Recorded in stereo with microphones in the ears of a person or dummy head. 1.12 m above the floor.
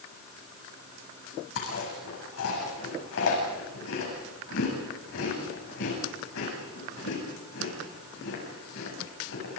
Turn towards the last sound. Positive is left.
turn(degrees=70)  # may be behind; listen again after turning